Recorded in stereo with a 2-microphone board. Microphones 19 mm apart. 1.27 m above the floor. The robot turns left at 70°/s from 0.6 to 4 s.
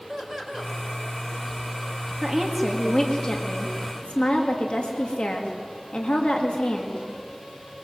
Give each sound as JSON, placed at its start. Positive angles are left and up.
{"t": 0.1, "sound": "laughter", "side_deg": -25, "distance_m": 5.0}
{"t": 2.2, "sound": "a woman speaking", "azimuth_deg": -150, "distance_m": 1.7}